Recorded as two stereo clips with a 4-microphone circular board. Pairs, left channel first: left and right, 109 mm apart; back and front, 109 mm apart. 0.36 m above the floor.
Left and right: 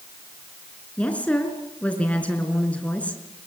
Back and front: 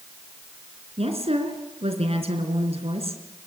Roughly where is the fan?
I don't hear a fan.